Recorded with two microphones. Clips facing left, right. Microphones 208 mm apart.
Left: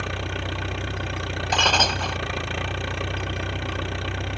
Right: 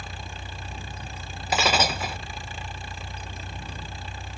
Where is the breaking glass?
5° right (ahead or behind).